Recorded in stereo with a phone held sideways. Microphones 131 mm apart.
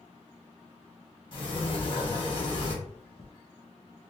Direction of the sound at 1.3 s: 40° left (ahead or behind).